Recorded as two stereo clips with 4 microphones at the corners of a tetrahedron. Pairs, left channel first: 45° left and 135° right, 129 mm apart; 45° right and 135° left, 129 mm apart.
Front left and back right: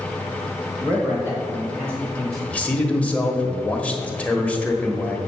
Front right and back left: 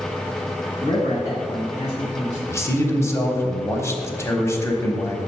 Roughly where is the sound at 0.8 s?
Right.